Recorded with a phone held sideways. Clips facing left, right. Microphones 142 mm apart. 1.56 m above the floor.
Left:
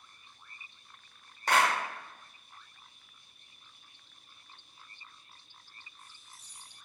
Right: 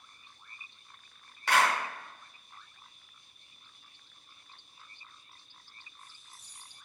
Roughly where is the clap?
Left.